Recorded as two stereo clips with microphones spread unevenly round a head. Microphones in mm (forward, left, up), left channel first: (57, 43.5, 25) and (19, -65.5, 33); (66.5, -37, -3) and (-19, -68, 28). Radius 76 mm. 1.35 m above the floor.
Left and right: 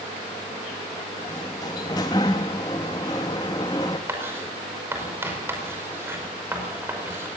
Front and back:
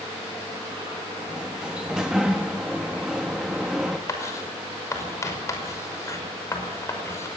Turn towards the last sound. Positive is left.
turn(degrees=-40)